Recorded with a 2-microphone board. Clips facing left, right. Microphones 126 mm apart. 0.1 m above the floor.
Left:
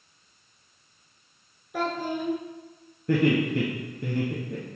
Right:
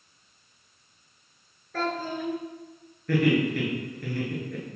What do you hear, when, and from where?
1.7 s a child speaking: 15° left (ahead or behind), 0.7 m
3.1 s laughter: 25° left (ahead or behind), 1.4 m